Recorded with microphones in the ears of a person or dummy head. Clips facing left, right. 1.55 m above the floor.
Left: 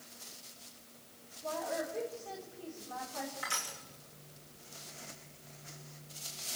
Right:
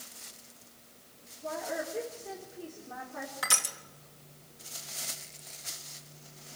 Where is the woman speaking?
40° right (ahead or behind), 4.5 m.